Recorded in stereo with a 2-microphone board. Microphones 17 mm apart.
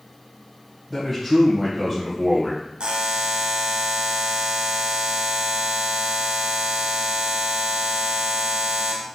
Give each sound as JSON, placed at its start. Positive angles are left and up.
{"t": 0.9, "sound": "a man speaking", "side_deg": 0, "distance_m": 1.3}
{"t": 2.8, "sound": "a buzzer", "side_deg": -75, "distance_m": 0.8}